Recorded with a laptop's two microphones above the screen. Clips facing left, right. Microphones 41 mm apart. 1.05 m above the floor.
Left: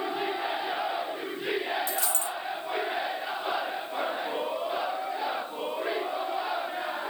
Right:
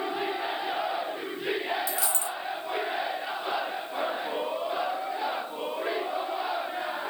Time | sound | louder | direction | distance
1.9 | a dropped coin | even | 50° left (ahead or behind) | 1.7 m